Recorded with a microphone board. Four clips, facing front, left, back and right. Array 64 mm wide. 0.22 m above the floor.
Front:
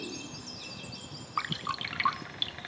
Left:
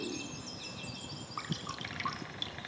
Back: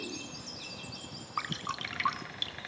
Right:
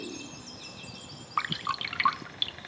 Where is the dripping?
80° right, 1.0 m.